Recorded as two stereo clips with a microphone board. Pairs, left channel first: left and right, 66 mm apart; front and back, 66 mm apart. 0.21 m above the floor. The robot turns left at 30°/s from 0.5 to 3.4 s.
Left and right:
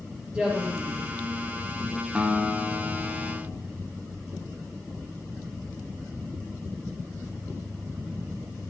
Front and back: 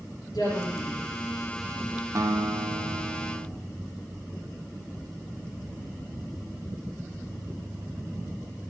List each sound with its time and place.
0.3 s a woman speaking: 20° right, 4.5 m; by 1.0 s 35° right, 4.5 m
2.1 s a guitar: 160° right, 1.0 m; by 3.5 s 160° left, 1.0 m